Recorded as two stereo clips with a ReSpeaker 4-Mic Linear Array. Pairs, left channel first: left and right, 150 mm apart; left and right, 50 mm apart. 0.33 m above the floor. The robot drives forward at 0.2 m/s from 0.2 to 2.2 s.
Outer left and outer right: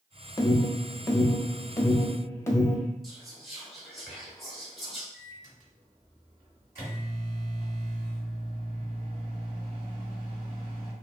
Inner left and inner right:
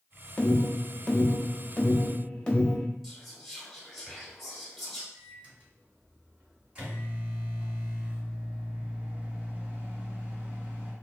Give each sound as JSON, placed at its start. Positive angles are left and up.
{"t": 0.4, "sound": "an alarm", "side_deg": 25, "distance_m": 0.6}
{"t": 3.0, "sound": "whispering", "side_deg": 0, "distance_m": 0.9}
{"t": 5.1, "sound": "a microwave", "side_deg": -20, "distance_m": 1.8}